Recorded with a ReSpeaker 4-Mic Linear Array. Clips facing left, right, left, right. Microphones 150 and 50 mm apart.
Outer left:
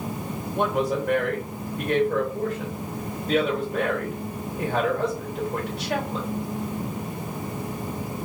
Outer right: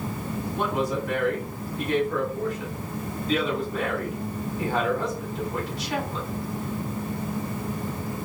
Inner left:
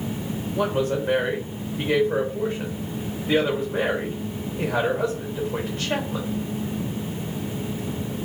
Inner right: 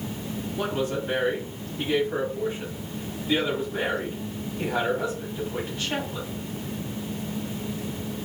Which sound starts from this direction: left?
A woman speaking, at 0.5 s.